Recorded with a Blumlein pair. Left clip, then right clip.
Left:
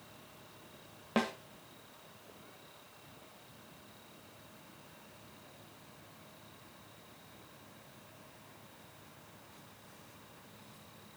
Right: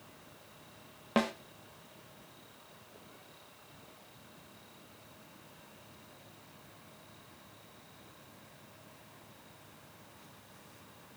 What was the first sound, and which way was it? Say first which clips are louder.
A snare drum: right 2 dB; 5° right.